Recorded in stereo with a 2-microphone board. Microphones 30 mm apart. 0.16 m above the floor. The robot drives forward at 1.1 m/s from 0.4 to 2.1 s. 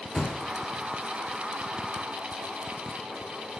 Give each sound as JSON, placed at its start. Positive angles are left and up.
{"t": 0.1, "sound": "a thud", "side_deg": 20, "distance_m": 3.0}